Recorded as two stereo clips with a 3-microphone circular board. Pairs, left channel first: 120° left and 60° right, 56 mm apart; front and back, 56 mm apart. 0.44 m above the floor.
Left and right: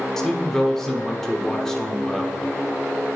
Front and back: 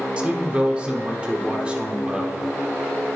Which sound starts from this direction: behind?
A man speaking, at 0.2 s.